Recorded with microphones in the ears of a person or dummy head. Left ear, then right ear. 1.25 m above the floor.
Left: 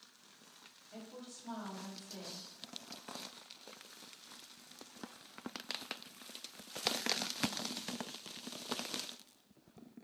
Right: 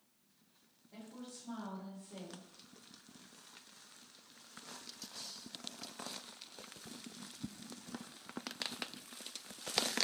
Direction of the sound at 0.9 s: 60° left (ahead or behind).